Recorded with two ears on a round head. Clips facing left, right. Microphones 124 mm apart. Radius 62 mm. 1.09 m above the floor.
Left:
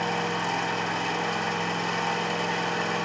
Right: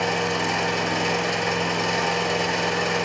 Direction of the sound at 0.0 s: 75° right (ahead or behind).